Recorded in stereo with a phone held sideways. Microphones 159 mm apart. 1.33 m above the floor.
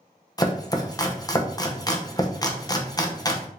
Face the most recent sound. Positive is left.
turn(degrees=25)  # may be behind; listen again after turning